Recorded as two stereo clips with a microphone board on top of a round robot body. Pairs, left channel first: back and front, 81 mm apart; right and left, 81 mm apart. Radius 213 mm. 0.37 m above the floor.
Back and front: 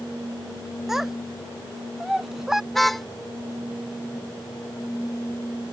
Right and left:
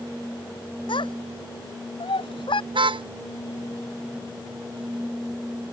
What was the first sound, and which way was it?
A child speaking, 85° right.